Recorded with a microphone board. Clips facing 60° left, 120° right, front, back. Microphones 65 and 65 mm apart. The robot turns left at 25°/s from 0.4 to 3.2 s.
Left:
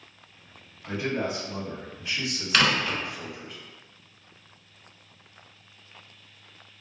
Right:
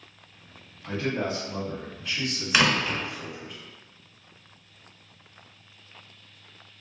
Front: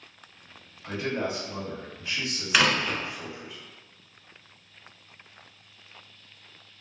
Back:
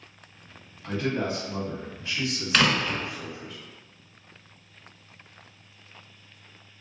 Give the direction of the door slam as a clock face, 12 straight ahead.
2 o'clock.